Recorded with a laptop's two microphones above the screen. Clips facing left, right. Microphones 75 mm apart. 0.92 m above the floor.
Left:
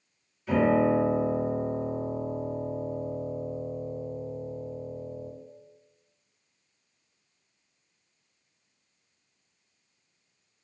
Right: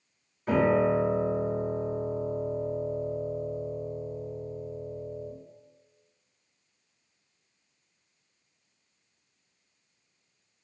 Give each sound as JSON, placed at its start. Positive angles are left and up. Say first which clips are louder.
{"t": 0.5, "sound": "a piano", "louder": "left 1 dB", "side_deg": -45, "distance_m": 1.1}